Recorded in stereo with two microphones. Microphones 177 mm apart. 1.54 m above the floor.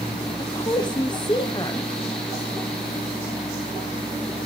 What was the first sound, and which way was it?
A woman speaking, 25° left (ahead or behind).